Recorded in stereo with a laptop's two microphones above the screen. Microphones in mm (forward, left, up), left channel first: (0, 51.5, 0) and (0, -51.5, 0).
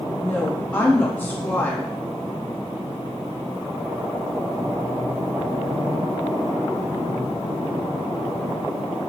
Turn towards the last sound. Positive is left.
turn(degrees=20)  # may be behind; listen again after turning